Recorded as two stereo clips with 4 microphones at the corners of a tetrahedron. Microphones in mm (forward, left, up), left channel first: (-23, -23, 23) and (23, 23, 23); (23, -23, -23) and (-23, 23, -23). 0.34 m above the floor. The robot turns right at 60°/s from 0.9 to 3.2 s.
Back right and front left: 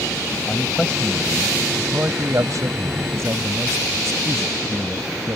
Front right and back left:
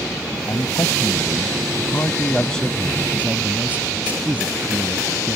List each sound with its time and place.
0.5 s a man speaking: 65° right; by 5.4 s 75° left